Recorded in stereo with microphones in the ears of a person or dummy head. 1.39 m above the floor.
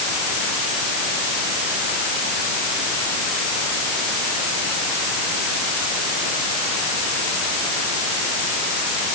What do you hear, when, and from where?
Only background noise.